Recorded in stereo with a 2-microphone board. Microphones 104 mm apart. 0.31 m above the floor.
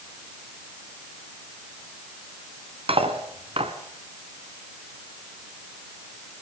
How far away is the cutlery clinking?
About 2 m.